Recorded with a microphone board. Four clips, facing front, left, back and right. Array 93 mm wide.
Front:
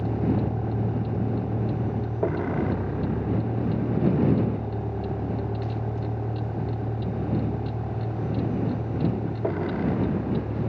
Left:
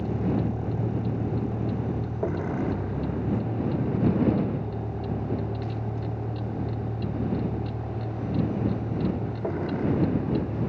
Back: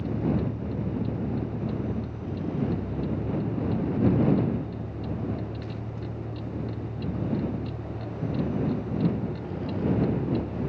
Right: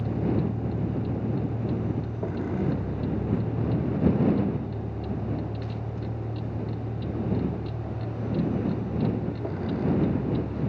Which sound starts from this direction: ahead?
A vehicle, at 0.0 s.